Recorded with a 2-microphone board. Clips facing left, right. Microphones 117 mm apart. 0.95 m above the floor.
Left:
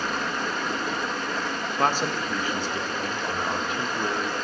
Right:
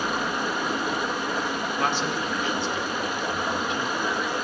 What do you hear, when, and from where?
0.0 s running water: 10° right (ahead or behind), 1.1 m
1.8 s a man speaking: 40° left (ahead or behind), 1.3 m